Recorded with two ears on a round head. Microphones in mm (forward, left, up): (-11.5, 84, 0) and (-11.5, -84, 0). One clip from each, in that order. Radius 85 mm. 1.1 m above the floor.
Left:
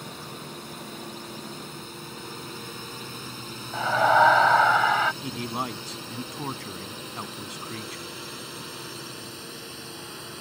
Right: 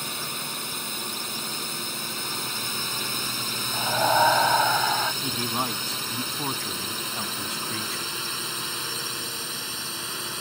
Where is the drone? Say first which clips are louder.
Right 8 dB; 65° right (ahead or behind); by 10.4 s 45° right (ahead or behind).